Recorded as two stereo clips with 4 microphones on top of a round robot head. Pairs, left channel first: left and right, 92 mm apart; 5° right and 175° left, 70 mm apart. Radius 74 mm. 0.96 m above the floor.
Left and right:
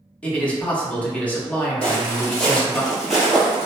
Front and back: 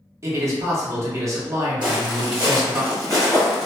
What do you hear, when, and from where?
0.2 s a man speaking: 160° left, 1.0 m
1.8 s footsteps: 170° left, 1.7 m; by 3.7 s 160° right, 1.0 m